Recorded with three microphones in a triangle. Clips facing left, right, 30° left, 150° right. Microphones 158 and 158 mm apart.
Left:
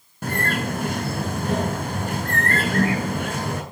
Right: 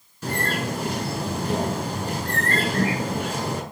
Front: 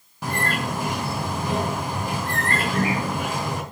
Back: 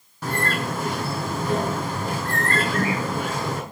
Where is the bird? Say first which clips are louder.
Left 1 dB, even; 105° left, 3 m.